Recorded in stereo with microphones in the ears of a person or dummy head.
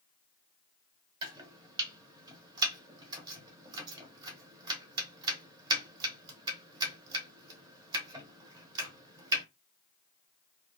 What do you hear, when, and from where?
1.2 s chopping: 25° right (ahead or behind), 0.9 m